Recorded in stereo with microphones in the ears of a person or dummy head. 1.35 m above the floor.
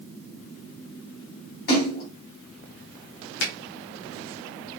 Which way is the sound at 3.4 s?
65° left (ahead or behind).